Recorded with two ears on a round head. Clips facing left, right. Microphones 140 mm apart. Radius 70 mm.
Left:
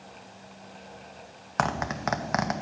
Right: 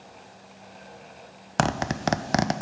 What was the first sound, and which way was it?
A zipper, 40° right (ahead or behind).